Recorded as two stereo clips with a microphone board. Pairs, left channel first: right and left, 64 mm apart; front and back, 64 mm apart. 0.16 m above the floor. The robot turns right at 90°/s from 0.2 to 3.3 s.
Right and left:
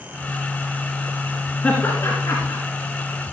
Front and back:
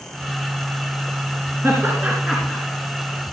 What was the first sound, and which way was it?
Laughter, 155° right.